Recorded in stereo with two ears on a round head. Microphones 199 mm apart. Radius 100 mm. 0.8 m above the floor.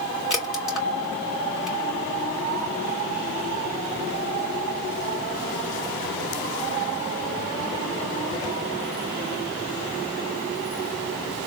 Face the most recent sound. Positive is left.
turn(degrees=0)  # may be behind; listen again after turning